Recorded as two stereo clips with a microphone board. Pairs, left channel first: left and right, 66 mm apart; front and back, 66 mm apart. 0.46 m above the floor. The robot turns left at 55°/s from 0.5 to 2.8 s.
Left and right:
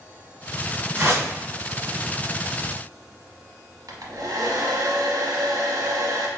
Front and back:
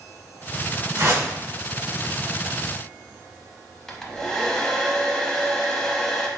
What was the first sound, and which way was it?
A whoosh, 135° right.